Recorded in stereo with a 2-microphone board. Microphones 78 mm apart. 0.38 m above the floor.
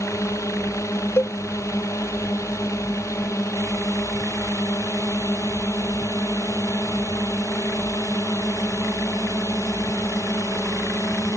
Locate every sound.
0.0 s a drone: 40° left (ahead or behind)
1.2 s a cowbell: 35° left (ahead or behind)